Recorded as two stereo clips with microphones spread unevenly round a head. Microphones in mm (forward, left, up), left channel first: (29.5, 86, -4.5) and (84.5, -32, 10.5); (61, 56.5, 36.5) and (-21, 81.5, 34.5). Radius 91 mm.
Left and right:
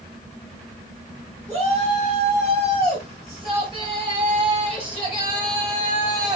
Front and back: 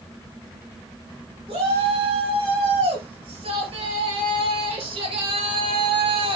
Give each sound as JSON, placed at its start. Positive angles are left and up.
{"t": 1.5, "sound": "a shout", "azimuth_deg": -165, "distance_m": 5.5}